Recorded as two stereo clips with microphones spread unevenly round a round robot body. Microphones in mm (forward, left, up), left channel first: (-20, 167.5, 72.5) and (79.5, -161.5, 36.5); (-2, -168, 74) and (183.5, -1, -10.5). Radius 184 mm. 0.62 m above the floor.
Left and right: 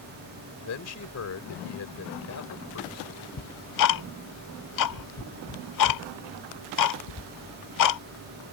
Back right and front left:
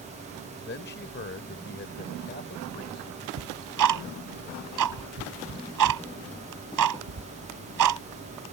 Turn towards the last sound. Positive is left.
turn(degrees=80)